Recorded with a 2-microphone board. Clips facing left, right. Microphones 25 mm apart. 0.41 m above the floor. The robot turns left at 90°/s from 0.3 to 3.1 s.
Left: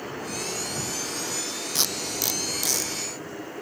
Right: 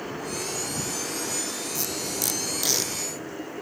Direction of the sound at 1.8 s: 60° left (ahead or behind).